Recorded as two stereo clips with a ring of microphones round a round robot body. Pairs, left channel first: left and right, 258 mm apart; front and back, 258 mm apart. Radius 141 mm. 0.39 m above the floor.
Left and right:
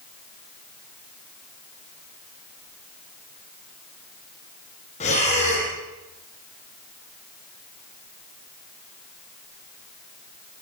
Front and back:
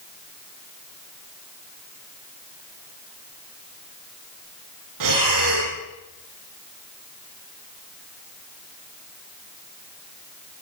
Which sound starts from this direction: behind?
Breathing, at 5.0 s.